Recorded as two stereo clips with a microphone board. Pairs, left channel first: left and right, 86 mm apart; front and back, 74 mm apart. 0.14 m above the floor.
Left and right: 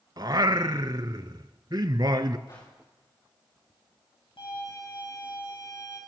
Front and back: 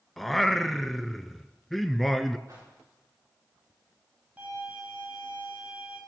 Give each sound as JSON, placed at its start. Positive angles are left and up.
{"t": 0.2, "sound": "singing", "azimuth_deg": -85, "distance_m": 0.7}
{"t": 2.5, "sound": "a whoosh", "azimuth_deg": 135, "distance_m": 8.5}
{"t": 4.4, "sound": "a violin", "azimuth_deg": 110, "distance_m": 9.5}